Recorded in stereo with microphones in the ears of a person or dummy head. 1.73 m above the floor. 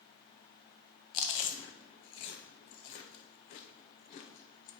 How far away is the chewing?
About 0.6 m.